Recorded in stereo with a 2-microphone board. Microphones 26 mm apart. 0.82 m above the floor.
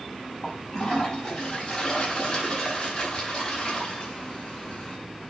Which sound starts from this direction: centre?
A toilet flushing, at 0.4 s.